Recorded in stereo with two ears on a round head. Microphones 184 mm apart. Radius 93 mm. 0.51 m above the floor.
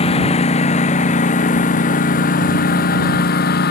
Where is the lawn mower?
30° left (ahead or behind); by 3.7 s 50° left (ahead or behind).